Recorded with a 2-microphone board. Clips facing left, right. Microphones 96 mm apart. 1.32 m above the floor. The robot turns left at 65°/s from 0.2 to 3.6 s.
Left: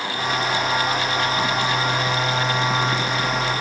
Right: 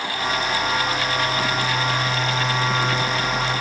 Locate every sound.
Only background noise.